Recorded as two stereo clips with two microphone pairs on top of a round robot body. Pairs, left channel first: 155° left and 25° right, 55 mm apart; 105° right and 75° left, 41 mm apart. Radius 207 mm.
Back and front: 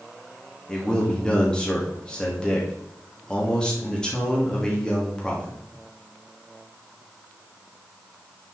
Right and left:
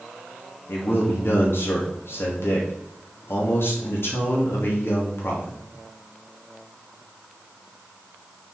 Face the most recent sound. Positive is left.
turn(degrees=-130)